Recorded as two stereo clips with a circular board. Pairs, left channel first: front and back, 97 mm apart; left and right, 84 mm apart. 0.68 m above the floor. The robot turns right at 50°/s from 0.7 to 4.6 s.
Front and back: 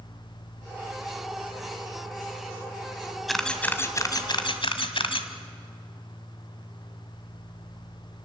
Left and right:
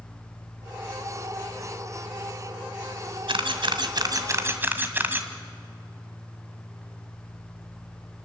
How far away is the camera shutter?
About 1.6 m.